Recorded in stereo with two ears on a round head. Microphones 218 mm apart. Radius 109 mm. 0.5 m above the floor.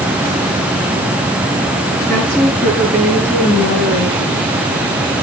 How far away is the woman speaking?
About 5.5 m.